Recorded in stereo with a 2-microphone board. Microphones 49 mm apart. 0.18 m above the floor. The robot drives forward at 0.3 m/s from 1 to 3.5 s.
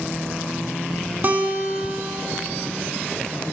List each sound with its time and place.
1.2 s a guitar: 40° right (ahead or behind), 0.6 m; by 2.5 s 30° right (ahead or behind), 0.8 m